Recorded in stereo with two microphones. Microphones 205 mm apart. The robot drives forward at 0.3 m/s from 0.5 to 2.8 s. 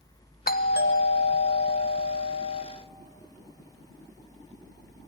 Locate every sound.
0.5 s a doorbell: 45° left (ahead or behind), 1.1 m; by 2.6 s 65° left (ahead or behind), 0.9 m